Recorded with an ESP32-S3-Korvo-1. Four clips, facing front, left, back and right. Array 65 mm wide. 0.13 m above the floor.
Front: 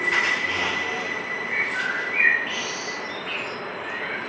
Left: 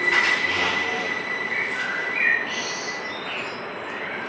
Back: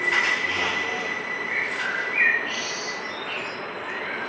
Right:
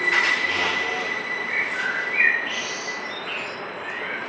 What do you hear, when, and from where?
1.4 s a bird: 40° right, 1.6 m